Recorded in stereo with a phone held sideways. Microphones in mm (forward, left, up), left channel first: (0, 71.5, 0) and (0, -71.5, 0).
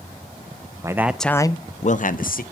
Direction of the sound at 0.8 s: 20° right (ahead or behind).